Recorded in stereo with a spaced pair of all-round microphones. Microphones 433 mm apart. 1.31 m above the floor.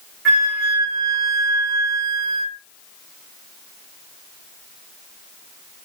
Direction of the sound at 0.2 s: 30° right (ahead or behind).